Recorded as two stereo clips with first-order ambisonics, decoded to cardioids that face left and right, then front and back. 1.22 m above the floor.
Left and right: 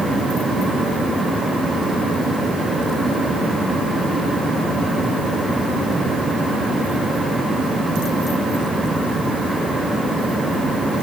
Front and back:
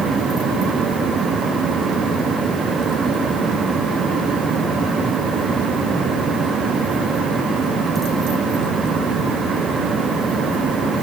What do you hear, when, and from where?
Only background noise.